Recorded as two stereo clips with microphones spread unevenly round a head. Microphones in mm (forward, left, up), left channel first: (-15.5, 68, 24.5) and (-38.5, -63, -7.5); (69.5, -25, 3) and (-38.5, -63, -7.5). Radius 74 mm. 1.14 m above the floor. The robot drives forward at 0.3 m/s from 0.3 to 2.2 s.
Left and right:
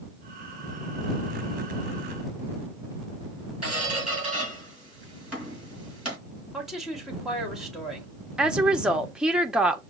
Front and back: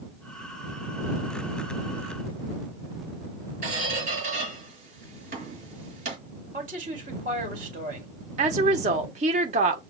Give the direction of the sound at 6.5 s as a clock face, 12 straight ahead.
6 o'clock.